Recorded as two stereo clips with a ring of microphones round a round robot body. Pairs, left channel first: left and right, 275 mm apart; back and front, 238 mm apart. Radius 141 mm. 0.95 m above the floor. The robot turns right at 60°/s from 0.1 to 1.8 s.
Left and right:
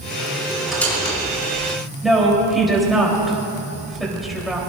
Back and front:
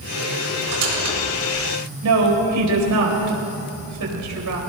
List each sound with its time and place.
0.7 s a squeak: 5° right, 4.5 m; by 1.2 s 30° left, 4.5 m
2.0 s a woman speaking: straight ahead, 4 m